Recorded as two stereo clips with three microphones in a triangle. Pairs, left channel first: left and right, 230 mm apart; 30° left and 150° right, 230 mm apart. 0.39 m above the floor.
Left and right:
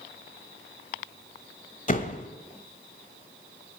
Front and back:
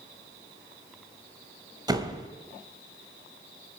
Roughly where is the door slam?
Behind left.